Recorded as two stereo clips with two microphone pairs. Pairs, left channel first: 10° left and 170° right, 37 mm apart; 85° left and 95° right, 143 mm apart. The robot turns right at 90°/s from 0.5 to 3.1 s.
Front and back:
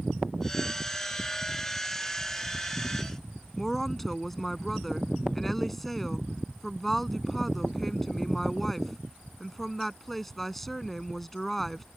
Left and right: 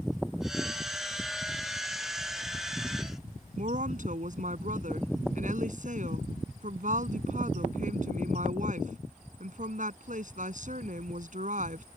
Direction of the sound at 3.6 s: 70° right.